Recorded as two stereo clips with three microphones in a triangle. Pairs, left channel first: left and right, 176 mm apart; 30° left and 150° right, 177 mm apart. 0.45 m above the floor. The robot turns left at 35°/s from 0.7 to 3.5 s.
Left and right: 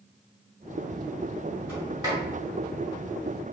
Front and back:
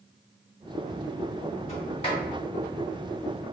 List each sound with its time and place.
1.7 s a sliding door: 10° right, 1.9 m; by 2.2 s 30° right, 1.9 m